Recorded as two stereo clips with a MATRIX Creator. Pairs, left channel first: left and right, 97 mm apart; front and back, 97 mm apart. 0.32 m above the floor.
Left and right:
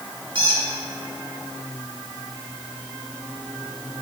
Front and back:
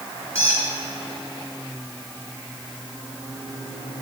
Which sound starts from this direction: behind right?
A squeak, at 0.3 s.